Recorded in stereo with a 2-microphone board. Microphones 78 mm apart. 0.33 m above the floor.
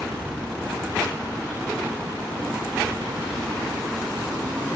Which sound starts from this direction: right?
A helicopter, at 0.0 s.